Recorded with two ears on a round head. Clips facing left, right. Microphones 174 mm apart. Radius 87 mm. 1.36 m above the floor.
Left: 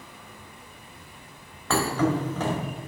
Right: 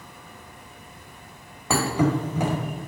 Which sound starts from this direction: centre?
A thud, at 1.7 s.